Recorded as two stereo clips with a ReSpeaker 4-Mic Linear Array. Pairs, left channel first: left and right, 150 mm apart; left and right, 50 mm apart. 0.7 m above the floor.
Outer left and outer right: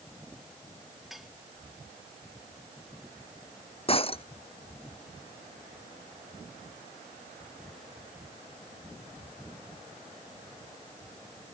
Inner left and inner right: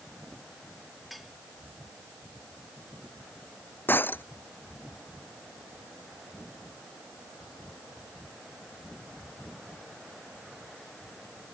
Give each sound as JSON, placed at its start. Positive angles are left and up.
{"t": 1.1, "sound": "dishes clattering", "side_deg": 0}
{"t": 3.9, "sound": "breaking glass", "side_deg": 40}